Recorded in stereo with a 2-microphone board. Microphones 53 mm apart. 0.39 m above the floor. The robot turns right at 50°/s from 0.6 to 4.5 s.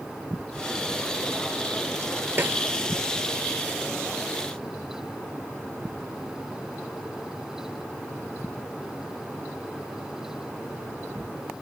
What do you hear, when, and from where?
2.4 s a snare drum: 45° right (ahead or behind), 1.6 m; by 2.6 s 35° right (ahead or behind), 1.6 m